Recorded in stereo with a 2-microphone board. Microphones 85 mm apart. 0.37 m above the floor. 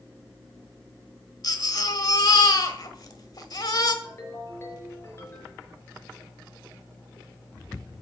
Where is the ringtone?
35° left (ahead or behind), 4 m.